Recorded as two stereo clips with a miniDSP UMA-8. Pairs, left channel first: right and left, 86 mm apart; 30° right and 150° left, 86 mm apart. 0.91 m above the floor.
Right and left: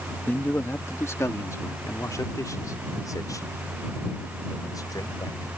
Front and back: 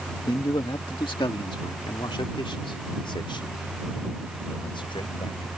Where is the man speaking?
25° right; by 5.5 s 45° right.